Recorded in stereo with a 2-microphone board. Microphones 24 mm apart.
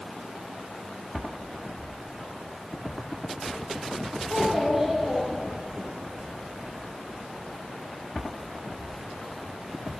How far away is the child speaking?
About 5.5 m.